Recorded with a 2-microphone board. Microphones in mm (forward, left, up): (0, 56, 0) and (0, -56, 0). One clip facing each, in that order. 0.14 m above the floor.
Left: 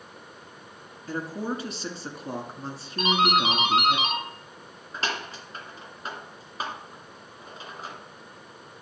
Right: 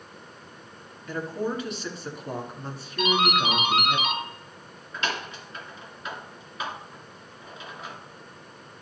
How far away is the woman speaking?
About 1.6 m.